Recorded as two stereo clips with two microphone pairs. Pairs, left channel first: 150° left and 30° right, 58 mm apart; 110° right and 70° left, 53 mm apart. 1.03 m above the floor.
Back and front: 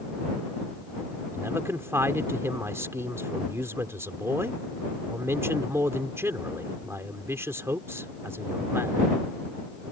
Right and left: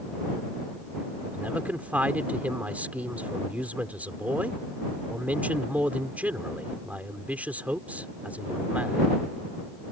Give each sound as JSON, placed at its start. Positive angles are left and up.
{"t": 1.3, "sound": "a man speaking", "azimuth_deg": 10}